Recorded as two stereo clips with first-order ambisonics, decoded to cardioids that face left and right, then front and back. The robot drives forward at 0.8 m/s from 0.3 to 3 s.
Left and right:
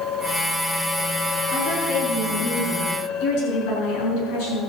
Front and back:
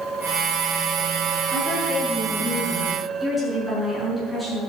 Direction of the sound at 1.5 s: 80° left.